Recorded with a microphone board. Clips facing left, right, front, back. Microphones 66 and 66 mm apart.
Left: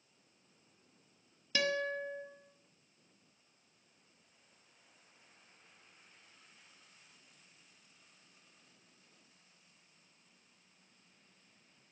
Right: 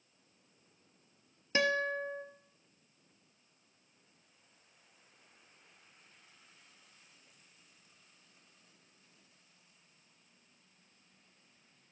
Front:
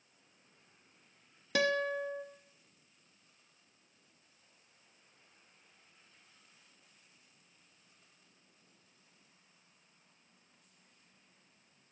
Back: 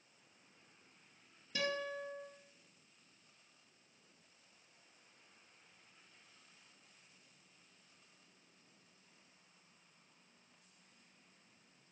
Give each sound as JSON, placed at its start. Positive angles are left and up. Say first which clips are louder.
{"t": 1.6, "sound": "a guitar", "louder": "right 3 dB, front 8 dB", "azimuth_deg": -25, "distance_m": 1.4}